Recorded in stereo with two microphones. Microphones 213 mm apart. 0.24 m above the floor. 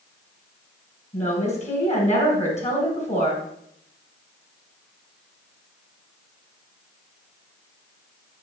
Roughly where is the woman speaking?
Left.